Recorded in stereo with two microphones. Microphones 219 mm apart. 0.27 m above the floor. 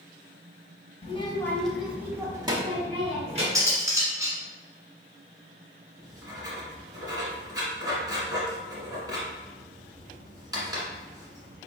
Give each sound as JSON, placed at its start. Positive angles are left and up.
{"t": 1.0, "sound": "a child speaking", "side_deg": 30, "distance_m": 0.7}
{"t": 3.5, "sound": "cutlery clinking", "side_deg": -15, "distance_m": 1.4}
{"t": 6.0, "sound": "writing", "side_deg": -20, "distance_m": 1.4}